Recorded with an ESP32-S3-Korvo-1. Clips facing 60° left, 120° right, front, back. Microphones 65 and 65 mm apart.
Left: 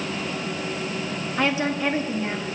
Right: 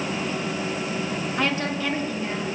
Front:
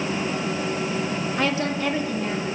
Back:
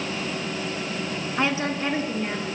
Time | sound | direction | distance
1.4 | a woman speaking | 145° left | 1.3 m